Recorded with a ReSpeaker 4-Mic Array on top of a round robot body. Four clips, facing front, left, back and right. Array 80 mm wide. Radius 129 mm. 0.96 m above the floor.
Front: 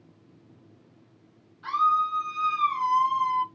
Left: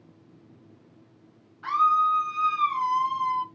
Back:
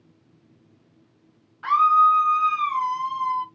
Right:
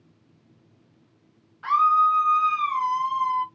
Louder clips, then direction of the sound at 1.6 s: Right 3 dB, back 7 dB; 170° right.